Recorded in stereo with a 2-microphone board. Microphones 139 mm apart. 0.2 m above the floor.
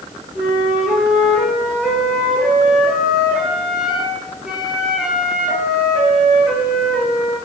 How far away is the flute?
About 3.5 m.